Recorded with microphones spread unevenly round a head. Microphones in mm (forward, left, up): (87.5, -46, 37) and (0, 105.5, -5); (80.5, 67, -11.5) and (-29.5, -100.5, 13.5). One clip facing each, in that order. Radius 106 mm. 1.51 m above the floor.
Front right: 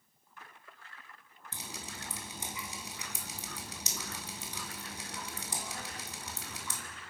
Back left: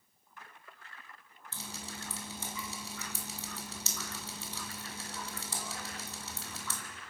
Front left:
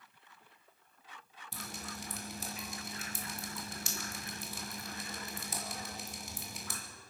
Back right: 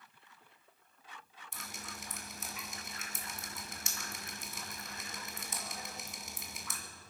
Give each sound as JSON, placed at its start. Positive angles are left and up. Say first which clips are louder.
{"t": 1.5, "sound": "dripping", "louder": "back left 1 dB, front left 4 dB", "azimuth_deg": 0, "distance_m": 2.5}